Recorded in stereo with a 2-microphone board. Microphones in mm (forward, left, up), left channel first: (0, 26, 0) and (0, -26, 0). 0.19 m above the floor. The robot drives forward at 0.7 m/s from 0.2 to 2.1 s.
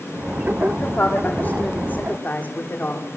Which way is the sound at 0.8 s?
30° left (ahead or behind).